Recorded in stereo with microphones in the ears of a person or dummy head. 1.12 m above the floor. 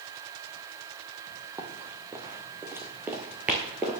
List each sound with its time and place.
1.6 s running footsteps: 15° right (ahead or behind), 1.8 m; by 4.0 s 5° right (ahead or behind), 1.1 m